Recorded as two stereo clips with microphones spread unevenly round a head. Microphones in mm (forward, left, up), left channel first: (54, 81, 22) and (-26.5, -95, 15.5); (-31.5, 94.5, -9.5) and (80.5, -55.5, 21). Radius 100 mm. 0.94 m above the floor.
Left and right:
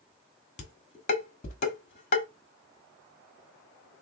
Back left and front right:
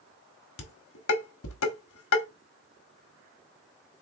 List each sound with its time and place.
0.6 s dishes clattering: 120° left, 1.4 m